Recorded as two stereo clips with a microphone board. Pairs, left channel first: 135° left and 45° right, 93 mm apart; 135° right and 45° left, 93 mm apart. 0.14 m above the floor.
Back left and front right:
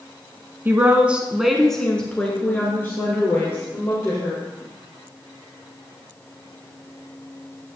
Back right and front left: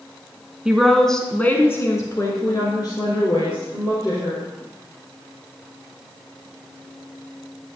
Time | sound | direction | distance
0.7 | a woman speaking | 25° right | 1.2 m